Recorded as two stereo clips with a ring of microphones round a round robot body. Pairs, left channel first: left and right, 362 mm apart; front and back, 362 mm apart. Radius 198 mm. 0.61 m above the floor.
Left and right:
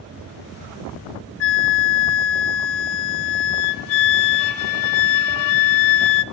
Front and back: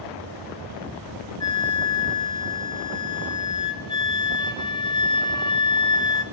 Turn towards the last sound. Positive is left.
turn(degrees=80)